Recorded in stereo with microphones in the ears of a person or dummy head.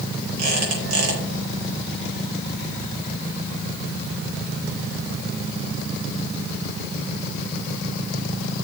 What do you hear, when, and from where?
0.4 s a squeak: 55° right (ahead or behind), 4 m